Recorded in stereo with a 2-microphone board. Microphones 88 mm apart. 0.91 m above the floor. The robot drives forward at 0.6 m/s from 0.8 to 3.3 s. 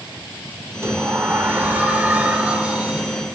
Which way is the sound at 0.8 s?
25° right (ahead or behind).